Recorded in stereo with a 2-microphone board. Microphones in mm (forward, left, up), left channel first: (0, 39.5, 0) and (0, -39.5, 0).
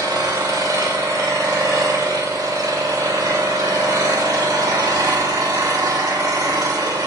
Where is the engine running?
50° right (ahead or behind), 1.9 m.